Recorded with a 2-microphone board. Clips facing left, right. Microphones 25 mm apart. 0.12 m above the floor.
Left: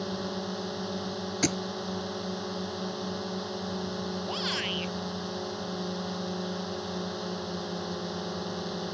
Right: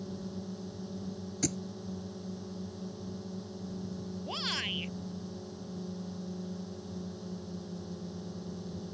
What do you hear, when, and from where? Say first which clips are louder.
0.0 s a drone: left 8 dB; 65° left (ahead or behind)
1.4 s a thud: left 6 dB; 45° left (ahead or behind)
4.3 s a shout: left 2 dB; 10° left (ahead or behind)